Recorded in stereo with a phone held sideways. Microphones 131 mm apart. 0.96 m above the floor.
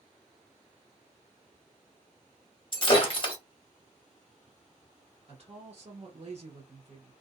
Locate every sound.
2.7 s breaking glass: 40° left (ahead or behind), 0.9 m
5.3 s a woman speaking: 50° right (ahead or behind), 0.9 m